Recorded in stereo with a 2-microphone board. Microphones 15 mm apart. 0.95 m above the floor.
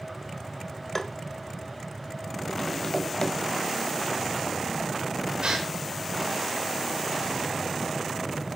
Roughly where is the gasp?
Right.